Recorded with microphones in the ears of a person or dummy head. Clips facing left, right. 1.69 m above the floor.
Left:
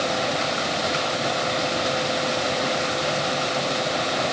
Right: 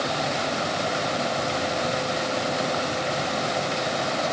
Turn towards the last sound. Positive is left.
No sound to turn to.